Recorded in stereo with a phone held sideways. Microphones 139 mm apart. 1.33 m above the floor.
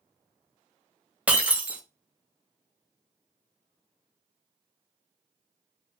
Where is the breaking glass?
10° right (ahead or behind), 0.5 m.